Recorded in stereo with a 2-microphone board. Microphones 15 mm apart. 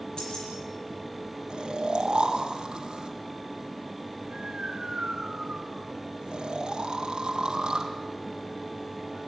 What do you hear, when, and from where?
0.2 s keys jangling: 60° left (ahead or behind), 8 m
1.5 s snoring: 70° right (ahead or behind), 3.5 m